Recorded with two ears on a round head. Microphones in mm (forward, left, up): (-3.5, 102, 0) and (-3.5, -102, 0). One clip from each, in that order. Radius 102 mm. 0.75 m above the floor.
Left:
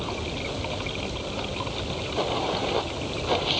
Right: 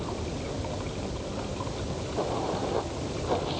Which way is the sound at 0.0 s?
65° left (ahead or behind).